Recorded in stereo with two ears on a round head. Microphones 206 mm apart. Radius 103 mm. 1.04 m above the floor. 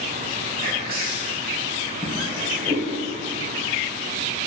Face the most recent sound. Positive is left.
turn(degrees=10)  # may be behind; listen again after turning